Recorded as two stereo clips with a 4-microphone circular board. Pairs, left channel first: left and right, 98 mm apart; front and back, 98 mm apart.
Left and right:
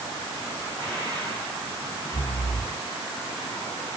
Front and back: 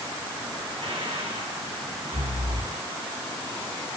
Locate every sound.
0.8 s breathing: 165° left, 3.5 m